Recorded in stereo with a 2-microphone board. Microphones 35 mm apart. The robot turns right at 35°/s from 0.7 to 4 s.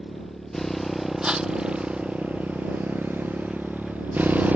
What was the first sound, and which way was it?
A motorcycle, 10° left (ahead or behind).